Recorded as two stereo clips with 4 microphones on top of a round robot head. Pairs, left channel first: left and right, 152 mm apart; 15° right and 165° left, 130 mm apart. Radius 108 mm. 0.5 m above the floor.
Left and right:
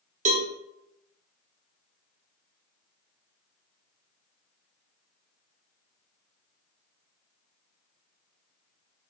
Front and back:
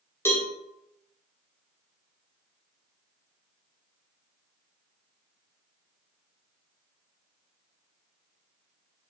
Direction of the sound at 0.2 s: 80° right.